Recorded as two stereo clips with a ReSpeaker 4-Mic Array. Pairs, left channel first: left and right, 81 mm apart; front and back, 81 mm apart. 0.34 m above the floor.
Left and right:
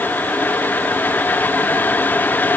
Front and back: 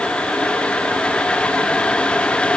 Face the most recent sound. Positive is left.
No sound to turn to.